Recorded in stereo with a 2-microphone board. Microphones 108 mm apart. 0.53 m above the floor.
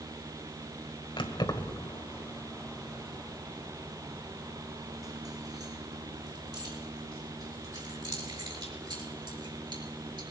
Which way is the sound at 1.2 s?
50° left (ahead or behind).